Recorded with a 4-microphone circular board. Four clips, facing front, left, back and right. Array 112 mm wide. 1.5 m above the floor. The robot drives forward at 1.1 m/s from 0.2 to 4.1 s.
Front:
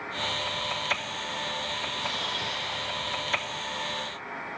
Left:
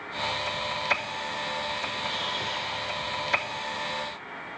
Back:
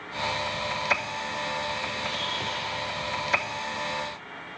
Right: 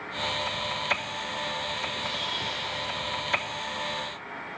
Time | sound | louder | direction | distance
2.0 | a camera shutter | left 1 dB, back 1 dB | 25° left | 7.5 m